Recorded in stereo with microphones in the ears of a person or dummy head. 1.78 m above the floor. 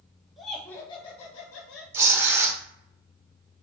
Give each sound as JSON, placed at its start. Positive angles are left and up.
{"t": 0.4, "sound": "laughter", "side_deg": 10, "distance_m": 1.1}
{"t": 1.9, "sound": "tearing paper", "side_deg": -20, "distance_m": 1.1}